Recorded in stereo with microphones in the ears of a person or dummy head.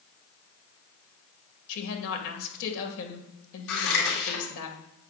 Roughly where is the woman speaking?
Left.